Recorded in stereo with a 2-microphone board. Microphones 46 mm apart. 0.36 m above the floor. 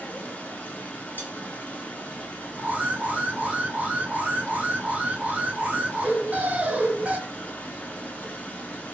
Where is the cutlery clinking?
50° left (ahead or behind), 1.5 m.